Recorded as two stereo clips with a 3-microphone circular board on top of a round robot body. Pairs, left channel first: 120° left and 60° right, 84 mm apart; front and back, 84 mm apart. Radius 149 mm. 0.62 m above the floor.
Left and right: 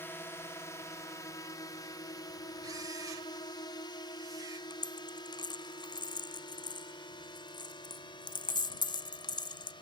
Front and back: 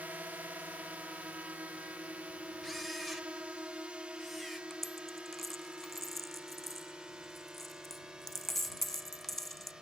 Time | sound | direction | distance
0.0 | a drone | 135° left | ?
2.6 | a camera shutter | 90° right | ?
4.7 | a dropped coin | 85° left | ?